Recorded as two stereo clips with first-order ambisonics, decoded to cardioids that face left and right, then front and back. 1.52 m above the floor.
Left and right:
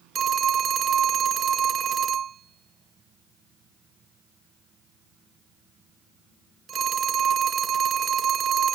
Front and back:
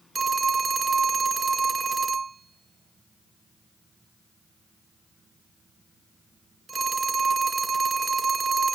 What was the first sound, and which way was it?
A phone ringing, 120° right.